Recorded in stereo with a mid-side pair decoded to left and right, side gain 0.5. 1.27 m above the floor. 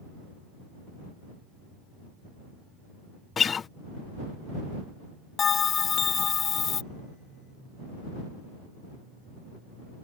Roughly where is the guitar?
Ahead left.